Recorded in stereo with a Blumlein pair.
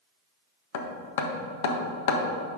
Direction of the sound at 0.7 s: 55° left.